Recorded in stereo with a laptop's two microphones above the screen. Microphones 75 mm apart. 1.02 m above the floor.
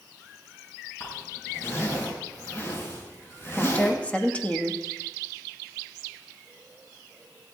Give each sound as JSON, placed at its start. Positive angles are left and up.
{"t": 1.0, "sound": "a zipper", "side_deg": 35, "distance_m": 6.5}
{"t": 3.6, "sound": "a woman speaking", "side_deg": 20, "distance_m": 1.8}